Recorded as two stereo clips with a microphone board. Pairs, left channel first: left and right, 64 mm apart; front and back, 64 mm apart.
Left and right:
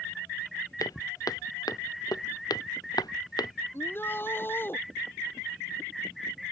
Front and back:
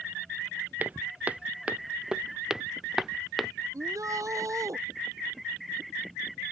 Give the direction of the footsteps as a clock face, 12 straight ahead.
8 o'clock.